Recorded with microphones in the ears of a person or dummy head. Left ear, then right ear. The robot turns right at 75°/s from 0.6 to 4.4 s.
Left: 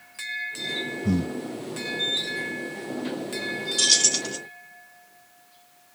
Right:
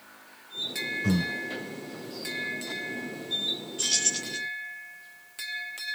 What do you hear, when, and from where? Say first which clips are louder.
1.0 s breathing: left 1 dB; 45° right (ahead or behind), 2.0 m
3.8 s keys jangling: left 8 dB; 75° left, 1.4 m; by 4.4 s 120° left, 1.4 m